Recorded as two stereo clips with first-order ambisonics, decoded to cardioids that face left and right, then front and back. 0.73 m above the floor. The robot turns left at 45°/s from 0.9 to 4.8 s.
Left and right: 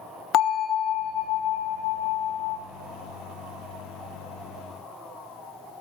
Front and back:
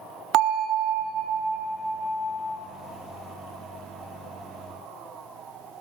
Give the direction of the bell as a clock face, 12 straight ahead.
7 o'clock.